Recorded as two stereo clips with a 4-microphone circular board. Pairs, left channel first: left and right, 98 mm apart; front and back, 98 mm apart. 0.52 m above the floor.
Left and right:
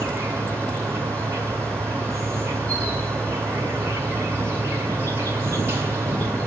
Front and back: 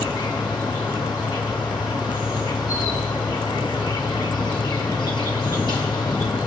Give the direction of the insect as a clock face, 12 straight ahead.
1 o'clock.